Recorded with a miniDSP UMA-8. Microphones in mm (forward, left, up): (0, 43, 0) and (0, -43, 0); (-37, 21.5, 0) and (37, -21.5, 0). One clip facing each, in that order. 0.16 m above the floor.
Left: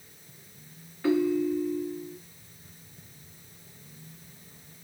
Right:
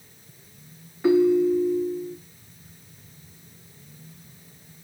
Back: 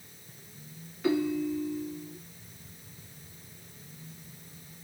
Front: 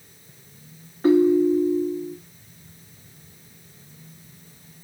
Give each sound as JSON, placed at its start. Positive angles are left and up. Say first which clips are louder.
{"t": 1.0, "sound": "a ringtone", "louder": "right 7 dB, front 12 dB", "azimuth_deg": -25, "distance_m": 0.6}